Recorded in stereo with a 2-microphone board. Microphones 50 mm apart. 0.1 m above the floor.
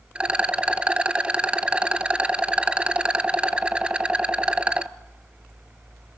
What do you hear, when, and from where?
0.1 s a rattle: 20° right (ahead or behind), 0.7 m